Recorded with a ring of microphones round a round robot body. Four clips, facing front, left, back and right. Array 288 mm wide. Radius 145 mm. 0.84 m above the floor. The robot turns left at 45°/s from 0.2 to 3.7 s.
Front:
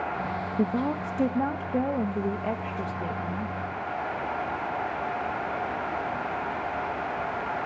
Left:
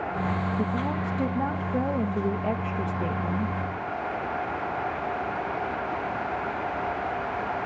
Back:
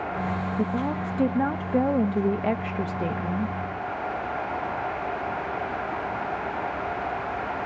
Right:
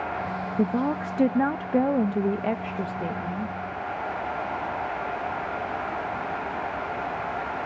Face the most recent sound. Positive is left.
turn(degrees=150)